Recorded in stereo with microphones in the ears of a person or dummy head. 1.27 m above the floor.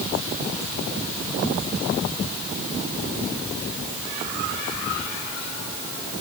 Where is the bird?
No bird in this recording.